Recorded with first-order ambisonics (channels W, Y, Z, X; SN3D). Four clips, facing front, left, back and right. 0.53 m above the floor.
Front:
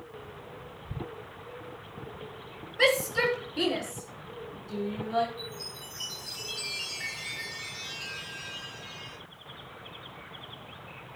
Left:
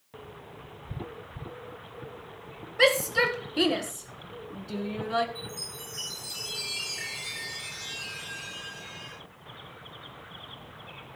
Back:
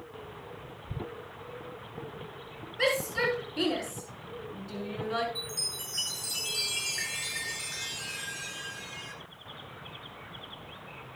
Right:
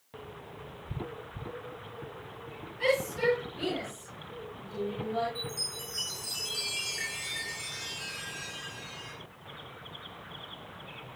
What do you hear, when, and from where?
2.8 s a shout: 75° left, 6 m; by 5.2 s 115° left, 5.5 m
5.3 s a chime: 170° right, 8 m